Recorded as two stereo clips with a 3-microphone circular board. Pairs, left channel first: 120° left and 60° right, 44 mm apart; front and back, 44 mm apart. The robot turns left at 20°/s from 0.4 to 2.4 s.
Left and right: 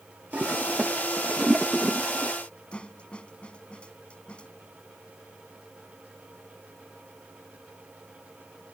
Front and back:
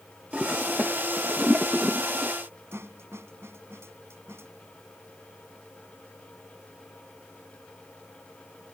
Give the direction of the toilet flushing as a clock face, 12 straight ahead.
4 o'clock.